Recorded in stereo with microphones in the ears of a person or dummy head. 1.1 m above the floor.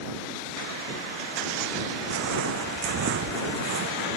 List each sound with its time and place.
2.1 s footsteps: 70° right (ahead or behind); by 4.1 s 65° right (ahead or behind)